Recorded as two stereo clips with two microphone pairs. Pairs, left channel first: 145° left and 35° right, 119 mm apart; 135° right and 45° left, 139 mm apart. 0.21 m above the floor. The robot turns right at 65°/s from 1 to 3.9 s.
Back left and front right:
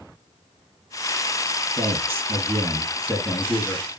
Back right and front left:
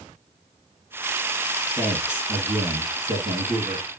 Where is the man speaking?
55° right, 1.8 m; by 3.9 s 80° left, 1.8 m.